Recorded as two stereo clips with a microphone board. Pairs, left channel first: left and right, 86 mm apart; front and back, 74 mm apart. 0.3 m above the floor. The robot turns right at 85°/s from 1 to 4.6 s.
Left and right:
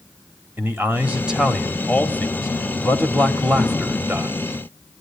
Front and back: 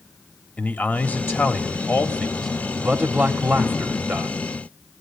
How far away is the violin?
I don't hear a violin.